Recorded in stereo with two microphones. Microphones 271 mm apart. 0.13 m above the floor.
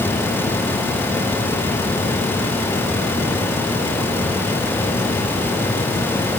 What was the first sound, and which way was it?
Only background noise.